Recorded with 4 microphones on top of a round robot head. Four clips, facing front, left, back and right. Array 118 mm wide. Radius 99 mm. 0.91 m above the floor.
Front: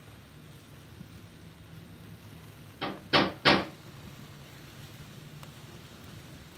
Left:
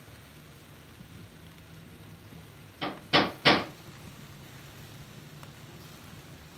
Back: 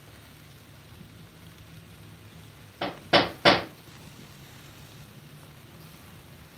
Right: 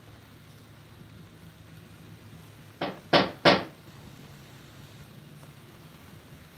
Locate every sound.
2.8 s hammering: 125° right, 0.8 m